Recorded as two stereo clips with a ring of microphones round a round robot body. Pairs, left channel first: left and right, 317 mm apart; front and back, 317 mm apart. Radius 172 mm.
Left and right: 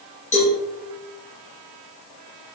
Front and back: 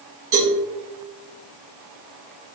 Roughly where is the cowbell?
Behind.